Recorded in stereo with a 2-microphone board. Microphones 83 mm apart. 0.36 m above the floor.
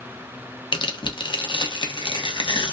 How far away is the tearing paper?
About 0.8 m.